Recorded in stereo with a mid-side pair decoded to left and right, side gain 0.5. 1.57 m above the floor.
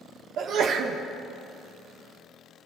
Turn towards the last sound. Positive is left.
turn(degrees=-65)